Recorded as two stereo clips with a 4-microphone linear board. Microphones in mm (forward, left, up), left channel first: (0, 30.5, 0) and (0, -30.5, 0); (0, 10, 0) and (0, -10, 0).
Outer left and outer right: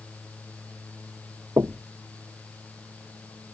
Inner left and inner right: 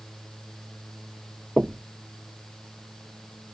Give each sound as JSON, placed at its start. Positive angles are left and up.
{"t": 1.6, "sound": "knocking", "side_deg": -45}